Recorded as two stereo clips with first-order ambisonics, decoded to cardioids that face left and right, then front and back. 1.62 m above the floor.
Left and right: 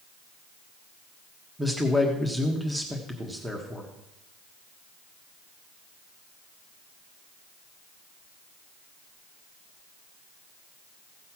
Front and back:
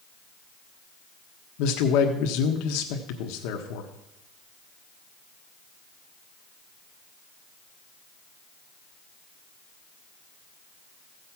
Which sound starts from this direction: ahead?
A man speaking, at 1.6 s.